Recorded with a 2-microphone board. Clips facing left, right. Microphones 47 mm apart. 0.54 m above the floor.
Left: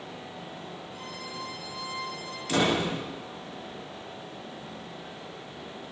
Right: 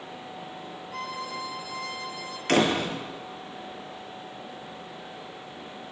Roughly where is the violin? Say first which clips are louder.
Right 9 dB; right.